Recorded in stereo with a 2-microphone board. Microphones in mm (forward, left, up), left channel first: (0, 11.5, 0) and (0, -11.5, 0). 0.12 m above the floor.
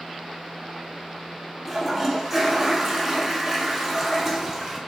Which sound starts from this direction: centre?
A toilet flushing, at 1.6 s.